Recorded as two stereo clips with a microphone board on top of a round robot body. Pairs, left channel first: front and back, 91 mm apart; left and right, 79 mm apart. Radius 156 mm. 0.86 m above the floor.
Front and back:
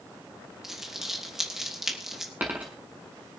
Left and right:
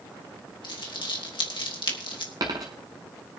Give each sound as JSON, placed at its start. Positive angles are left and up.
{"t": 0.6, "sound": "crumpling", "azimuth_deg": 95, "distance_m": 3.0}
{"t": 2.4, "sound": "a dropped coin", "azimuth_deg": -110, "distance_m": 0.8}